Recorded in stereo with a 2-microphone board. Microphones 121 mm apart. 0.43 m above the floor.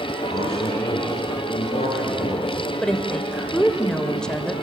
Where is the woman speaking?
5° left (ahead or behind), 1.5 m.